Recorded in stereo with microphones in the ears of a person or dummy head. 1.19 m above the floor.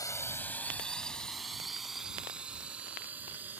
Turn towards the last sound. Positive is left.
turn(degrees=-10)  # may be behind; listen again after turning